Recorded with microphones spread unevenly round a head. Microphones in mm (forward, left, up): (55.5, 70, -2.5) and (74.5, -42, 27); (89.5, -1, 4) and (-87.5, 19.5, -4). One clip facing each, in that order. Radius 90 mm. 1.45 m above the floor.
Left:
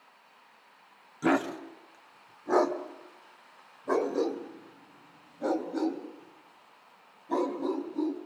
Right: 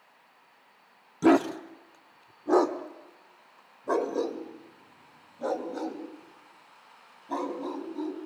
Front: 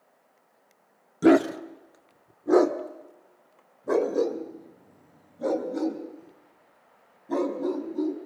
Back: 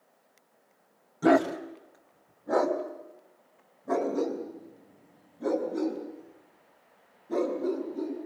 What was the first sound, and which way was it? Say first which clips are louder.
A dog barking: right 6 dB, front 4 dB; 50° right.